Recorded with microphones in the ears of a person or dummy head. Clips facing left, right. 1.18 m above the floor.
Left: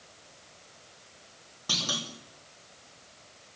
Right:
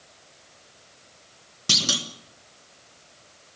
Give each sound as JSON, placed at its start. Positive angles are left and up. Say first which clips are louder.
{"t": 1.7, "sound": "a clunk", "louder": "right 5 dB", "side_deg": -35, "distance_m": 2.5}